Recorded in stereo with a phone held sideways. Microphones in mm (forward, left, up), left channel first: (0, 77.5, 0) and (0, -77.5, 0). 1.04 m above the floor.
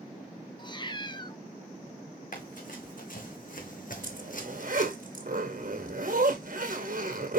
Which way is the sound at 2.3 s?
60° left (ahead or behind).